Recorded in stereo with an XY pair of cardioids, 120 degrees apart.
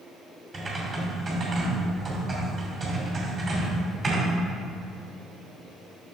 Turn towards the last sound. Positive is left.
turn(degrees=-40)